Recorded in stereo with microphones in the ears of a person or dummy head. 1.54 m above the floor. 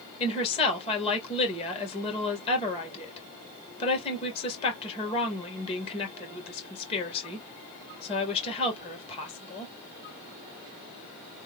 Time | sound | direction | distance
0.2 | a woman speaking | 30° left (ahead or behind) | 1.8 m